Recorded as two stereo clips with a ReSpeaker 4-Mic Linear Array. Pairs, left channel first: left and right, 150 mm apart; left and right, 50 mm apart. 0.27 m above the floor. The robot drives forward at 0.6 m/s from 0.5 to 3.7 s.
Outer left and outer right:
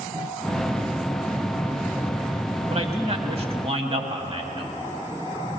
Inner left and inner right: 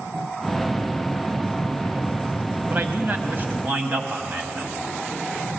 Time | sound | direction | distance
2.7 | a man speaking | 45° right (ahead or behind) | 1.2 m